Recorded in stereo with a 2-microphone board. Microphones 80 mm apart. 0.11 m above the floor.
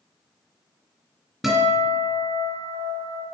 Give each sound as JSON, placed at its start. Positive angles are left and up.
{"t": 1.4, "sound": "a guitar", "side_deg": -5, "distance_m": 1.9}